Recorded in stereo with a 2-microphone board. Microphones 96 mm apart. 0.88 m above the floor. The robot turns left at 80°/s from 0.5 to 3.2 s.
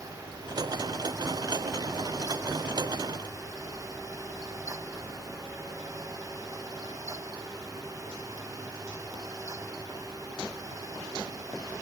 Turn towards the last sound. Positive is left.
No sound to turn to.